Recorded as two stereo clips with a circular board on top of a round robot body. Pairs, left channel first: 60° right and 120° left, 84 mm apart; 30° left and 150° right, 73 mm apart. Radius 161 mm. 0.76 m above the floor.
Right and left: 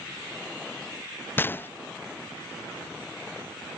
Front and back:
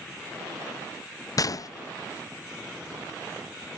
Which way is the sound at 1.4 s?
5° left.